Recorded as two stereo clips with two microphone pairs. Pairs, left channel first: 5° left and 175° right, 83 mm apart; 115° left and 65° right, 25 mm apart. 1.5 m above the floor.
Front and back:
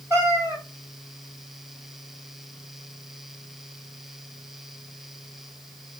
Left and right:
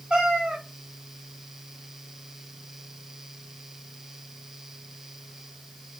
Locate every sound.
0.1 s a cat meowing: 115° right, 3 m